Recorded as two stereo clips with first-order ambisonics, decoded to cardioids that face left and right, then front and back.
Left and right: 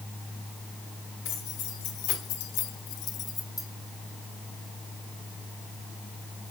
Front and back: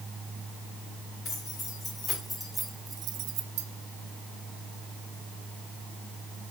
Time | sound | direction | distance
1.2 | keys jangling | 65° left | 2 m